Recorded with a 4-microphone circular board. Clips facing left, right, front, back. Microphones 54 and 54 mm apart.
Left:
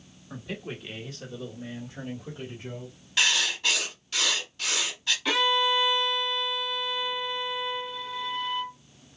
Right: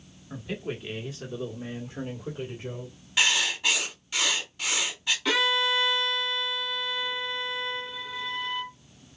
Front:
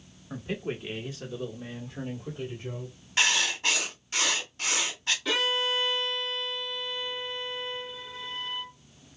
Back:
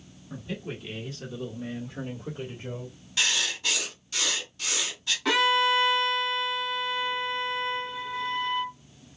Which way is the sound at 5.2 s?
175° right.